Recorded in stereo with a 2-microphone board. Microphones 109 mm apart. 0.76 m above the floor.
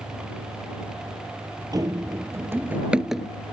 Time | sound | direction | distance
1.7 | running footsteps | 35° right (ahead or behind) | ?